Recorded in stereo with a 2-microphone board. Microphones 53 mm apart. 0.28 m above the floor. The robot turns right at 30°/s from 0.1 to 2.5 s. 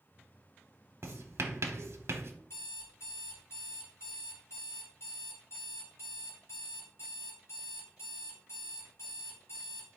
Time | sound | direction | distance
1.0 | writing | 55° right (ahead or behind) | 0.7 m
2.5 | an alarm clock | 65° left (ahead or behind) | 2.0 m